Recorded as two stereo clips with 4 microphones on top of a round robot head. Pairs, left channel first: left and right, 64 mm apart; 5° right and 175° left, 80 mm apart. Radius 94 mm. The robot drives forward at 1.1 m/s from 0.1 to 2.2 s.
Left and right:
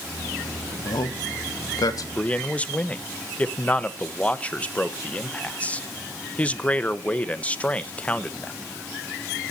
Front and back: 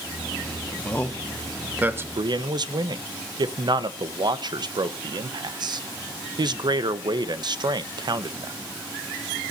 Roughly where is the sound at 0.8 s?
Ahead left.